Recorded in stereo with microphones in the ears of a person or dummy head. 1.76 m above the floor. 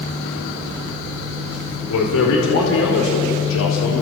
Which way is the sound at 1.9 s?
75° left (ahead or behind).